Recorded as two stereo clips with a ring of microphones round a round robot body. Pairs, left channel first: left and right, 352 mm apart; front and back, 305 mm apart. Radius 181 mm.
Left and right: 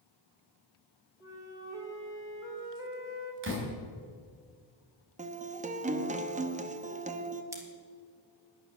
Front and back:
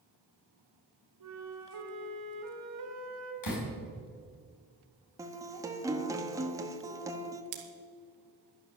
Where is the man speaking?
No man speaking in this recording.